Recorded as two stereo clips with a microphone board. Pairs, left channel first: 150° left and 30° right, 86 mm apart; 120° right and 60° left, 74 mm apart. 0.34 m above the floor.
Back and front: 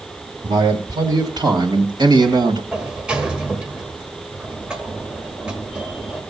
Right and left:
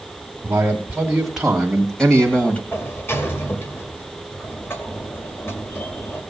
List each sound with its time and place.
0.4 s a man speaking: 10° right, 2.5 m; by 2.6 s 50° right, 2 m
2.7 s a sliding door: 100° right, 1.5 m